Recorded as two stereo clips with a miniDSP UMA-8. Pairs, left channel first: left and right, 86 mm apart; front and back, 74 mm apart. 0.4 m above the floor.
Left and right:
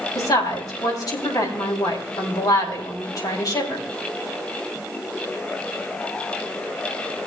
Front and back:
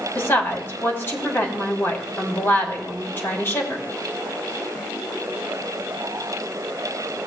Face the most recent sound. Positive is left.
turn(degrees=55)